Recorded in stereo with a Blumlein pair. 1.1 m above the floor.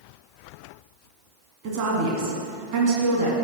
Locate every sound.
1.6 s a woman speaking: 40° right, 2.5 m